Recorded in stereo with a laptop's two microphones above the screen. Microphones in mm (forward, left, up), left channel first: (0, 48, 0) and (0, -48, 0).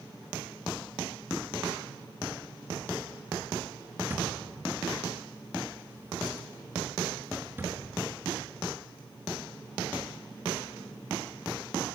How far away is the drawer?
About 5 m.